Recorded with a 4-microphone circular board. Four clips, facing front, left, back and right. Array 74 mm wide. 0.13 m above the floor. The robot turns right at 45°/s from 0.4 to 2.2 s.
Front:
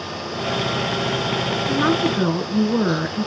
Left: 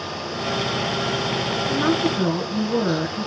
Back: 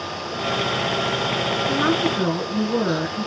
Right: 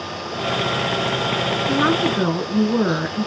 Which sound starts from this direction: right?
A woman speaking, at 1.7 s.